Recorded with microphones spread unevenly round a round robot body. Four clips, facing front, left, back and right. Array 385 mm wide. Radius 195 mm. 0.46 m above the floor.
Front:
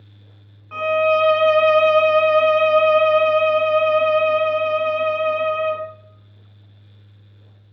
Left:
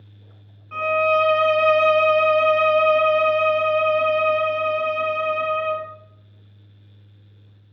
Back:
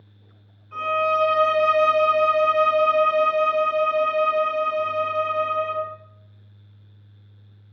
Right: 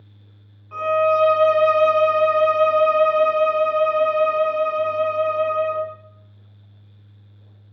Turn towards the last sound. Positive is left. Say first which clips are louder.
# right 1 dB, front 5 dB
turn(degrees=50)